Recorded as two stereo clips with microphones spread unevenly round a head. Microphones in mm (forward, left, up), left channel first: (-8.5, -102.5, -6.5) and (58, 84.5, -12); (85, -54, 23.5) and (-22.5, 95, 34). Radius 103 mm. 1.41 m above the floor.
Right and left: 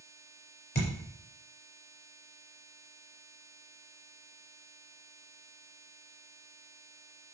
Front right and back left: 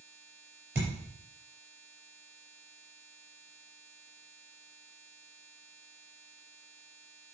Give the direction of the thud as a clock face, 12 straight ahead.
5 o'clock.